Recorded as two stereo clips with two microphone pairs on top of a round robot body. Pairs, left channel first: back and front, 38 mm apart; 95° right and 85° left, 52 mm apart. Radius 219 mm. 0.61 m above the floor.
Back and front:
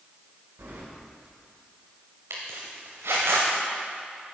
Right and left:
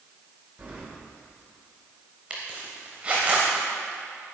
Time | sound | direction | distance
0.6 | keys jangling | 20° left | 2.5 m
2.3 | a zipper | 10° left | 0.6 m